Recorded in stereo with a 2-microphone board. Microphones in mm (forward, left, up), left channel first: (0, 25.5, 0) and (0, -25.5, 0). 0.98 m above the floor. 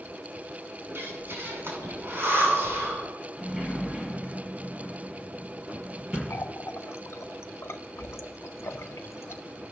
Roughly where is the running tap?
Left.